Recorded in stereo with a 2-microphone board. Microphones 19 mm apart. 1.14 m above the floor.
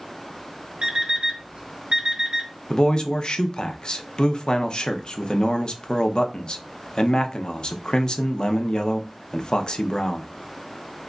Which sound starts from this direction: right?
An alarm clock, at 0.8 s.